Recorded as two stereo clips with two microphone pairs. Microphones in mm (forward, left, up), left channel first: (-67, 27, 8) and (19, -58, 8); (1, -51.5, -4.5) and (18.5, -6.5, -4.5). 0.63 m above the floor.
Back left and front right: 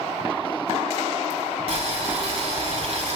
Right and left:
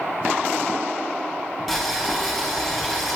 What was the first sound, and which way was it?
Boiling, 15° right.